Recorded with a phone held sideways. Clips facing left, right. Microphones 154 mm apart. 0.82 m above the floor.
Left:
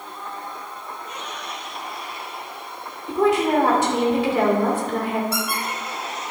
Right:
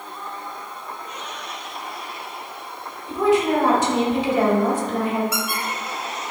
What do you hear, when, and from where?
3.1 s a woman speaking: 60° left (ahead or behind), 2 m
5.3 s a squeak: 35° left (ahead or behind), 2.5 m